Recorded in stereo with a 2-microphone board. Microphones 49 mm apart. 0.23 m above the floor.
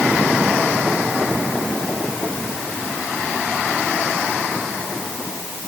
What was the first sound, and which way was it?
Only background noise.